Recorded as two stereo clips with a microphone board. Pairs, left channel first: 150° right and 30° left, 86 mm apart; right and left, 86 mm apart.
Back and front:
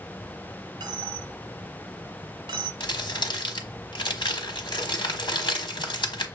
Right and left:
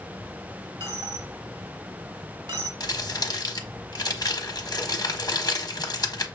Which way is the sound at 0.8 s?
55° left.